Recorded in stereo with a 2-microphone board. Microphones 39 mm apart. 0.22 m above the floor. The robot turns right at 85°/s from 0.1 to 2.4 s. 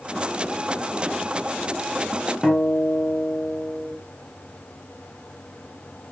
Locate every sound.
2.4 s a guitar: 5° right (ahead or behind), 1.0 m